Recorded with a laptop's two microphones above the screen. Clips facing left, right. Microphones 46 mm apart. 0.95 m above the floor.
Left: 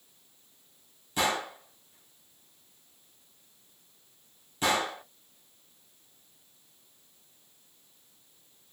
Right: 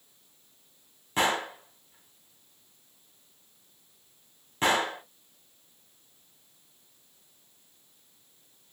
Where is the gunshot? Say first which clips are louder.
Right 2 dB; 40° right (ahead or behind), 1.1 m.